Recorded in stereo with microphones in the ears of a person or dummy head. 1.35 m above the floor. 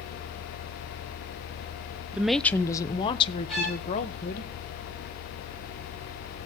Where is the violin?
Centre (ahead or behind), 4 m.